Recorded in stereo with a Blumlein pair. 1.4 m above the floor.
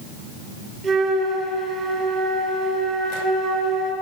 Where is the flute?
20° right, 8.5 m.